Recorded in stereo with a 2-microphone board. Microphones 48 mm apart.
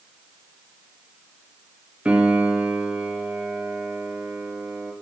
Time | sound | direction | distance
2.0 | a piano | 25° right (ahead or behind) | 2 m